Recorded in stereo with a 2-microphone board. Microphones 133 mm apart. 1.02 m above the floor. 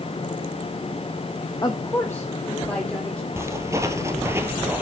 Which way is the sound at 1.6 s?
30° left (ahead or behind).